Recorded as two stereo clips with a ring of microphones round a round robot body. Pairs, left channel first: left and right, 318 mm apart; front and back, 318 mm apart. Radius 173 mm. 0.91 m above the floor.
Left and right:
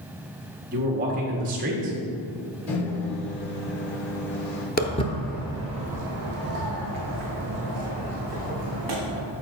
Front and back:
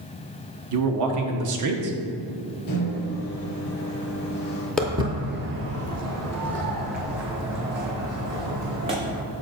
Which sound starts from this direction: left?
Footsteps, at 4.8 s.